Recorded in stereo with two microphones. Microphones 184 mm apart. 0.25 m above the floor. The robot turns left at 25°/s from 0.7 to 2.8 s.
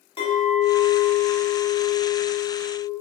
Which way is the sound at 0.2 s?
35° left.